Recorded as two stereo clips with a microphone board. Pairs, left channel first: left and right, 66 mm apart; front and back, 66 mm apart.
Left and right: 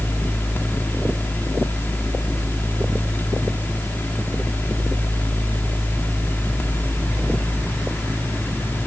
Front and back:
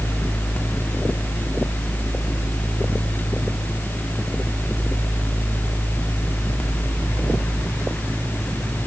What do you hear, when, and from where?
Only background noise.